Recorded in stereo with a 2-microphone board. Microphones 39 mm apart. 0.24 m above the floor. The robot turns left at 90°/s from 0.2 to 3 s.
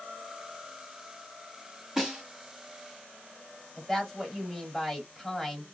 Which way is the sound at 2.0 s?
Centre (ahead or behind).